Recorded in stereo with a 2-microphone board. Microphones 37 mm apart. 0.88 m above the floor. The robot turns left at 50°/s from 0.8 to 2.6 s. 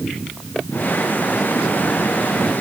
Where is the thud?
I don't hear a thud.